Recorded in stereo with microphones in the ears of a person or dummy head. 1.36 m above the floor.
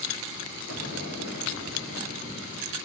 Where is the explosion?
75° left (ahead or behind), 3 m.